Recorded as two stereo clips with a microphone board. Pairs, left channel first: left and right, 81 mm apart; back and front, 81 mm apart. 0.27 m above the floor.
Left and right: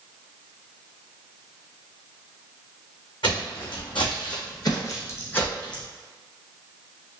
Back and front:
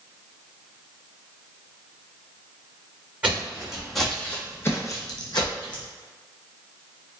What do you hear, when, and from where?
3.2 s footsteps: 75° left, 1.2 m; by 5.8 s 170° left, 1.1 m